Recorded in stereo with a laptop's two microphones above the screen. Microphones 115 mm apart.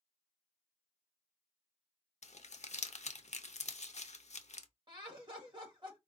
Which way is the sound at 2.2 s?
80° left.